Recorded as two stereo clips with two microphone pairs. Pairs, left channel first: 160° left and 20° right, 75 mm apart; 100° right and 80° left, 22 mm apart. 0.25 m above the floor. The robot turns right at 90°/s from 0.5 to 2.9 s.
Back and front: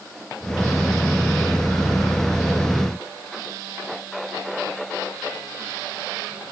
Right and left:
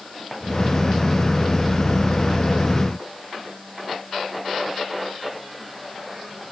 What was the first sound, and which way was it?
Only background noise.